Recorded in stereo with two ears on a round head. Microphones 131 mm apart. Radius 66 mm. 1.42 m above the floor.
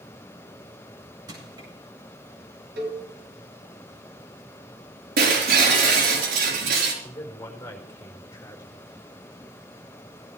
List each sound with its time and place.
1.3 s crushing: 30° right (ahead or behind), 8.5 m
2.8 s a cowbell: 70° right (ahead or behind), 5 m
5.2 s breaking glass: 75° right (ahead or behind), 4.5 m
7.0 s a man speaking: 20° left (ahead or behind), 4.5 m